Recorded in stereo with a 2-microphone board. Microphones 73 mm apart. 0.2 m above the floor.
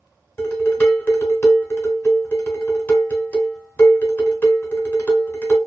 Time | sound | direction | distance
0.4 | dishes clattering | 30° left (ahead or behind) | 0.9 m